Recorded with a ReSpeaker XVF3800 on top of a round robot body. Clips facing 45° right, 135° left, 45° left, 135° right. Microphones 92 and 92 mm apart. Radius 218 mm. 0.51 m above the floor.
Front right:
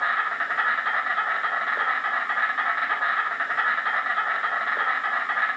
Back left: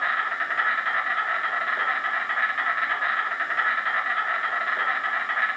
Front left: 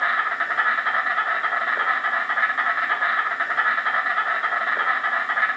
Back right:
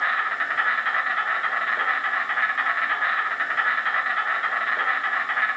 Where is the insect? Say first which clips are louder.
Front right 1 dB, front left 2 dB; straight ahead, 1.1 m.